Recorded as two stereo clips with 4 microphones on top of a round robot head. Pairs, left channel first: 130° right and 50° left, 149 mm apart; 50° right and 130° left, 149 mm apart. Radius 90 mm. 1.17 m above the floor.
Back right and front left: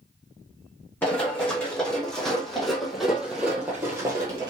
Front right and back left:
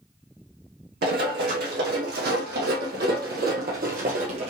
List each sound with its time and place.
1.0 s running footsteps: 150° left, 3 m; by 4.5 s 100° left, 1.3 m